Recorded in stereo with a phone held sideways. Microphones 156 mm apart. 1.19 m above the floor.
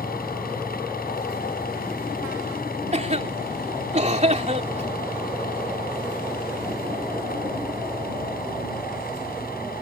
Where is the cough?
45° right (ahead or behind).